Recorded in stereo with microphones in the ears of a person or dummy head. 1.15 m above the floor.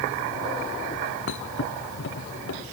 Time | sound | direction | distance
1.3 | a thud | 70° left (ahead or behind) | ?